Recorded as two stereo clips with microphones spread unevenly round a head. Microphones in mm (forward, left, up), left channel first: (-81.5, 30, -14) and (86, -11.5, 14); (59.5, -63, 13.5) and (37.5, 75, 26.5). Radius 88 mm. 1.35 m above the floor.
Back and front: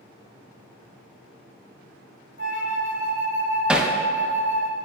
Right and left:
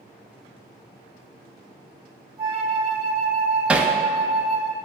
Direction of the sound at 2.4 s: 160° left.